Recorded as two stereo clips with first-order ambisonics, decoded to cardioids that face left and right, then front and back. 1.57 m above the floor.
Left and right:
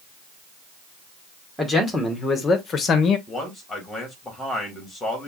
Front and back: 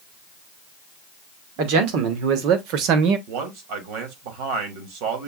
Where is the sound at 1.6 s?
Straight behind, 1.5 m; by 3.2 s 145° left, 0.9 m.